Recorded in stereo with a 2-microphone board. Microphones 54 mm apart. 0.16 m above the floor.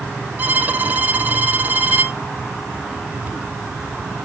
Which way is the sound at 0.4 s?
30° right (ahead or behind).